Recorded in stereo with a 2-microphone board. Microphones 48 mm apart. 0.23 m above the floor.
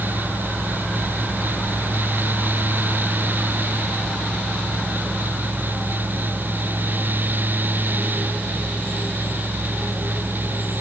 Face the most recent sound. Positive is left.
No sound to turn to.